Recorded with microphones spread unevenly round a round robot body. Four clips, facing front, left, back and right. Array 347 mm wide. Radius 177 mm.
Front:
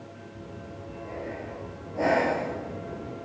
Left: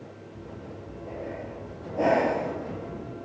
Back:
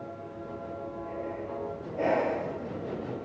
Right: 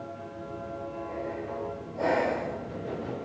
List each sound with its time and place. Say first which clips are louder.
0.3 s breathing: right 3 dB, back 3 dB; 55° left, 5 m